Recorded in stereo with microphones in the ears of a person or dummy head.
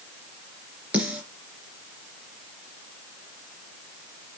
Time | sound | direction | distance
0.9 | a snare drum | 5° right (ahead or behind) | 3.5 m